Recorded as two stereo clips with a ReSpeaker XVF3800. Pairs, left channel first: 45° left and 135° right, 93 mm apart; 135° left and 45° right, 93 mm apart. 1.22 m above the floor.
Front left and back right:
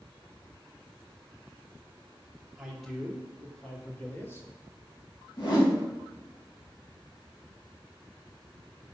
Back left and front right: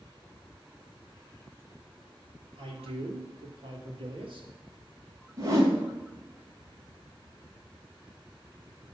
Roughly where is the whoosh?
Ahead.